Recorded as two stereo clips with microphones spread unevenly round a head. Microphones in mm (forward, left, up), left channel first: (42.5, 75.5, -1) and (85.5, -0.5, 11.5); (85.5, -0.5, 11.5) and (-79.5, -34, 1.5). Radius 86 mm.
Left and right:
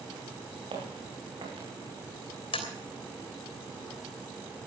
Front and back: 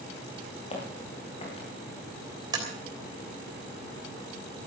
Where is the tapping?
125° left, 3 m.